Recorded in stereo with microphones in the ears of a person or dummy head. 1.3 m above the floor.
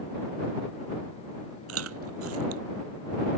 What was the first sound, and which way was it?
Chewing, 85° right.